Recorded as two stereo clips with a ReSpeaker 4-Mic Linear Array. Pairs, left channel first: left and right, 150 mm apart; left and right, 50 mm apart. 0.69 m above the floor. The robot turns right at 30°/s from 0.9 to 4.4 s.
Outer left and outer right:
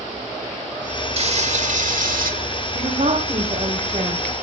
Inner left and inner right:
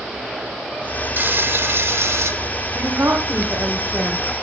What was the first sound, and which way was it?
Frying, 135° right.